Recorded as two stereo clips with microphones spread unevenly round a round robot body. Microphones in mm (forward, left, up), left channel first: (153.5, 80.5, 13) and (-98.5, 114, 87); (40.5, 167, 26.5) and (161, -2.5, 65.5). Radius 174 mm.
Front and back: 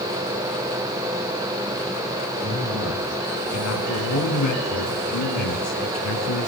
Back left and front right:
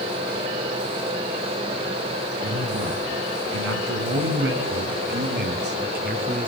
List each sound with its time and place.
2.4 s a man speaking: 55° right, 6 m; by 6.5 s straight ahead, 5.5 m